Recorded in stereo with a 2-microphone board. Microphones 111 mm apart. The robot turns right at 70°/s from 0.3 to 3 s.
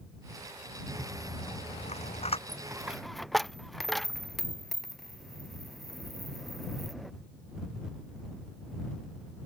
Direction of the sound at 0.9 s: 10° left (ahead or behind).